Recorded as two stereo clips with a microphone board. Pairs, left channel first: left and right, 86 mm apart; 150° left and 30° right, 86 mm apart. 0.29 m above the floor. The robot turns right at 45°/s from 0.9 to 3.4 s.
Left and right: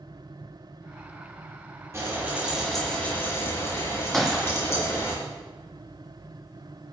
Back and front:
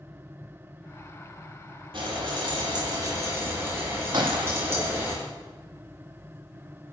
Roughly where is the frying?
Ahead right.